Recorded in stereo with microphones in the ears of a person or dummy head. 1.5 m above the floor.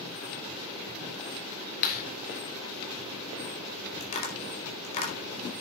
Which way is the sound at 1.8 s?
50° left (ahead or behind).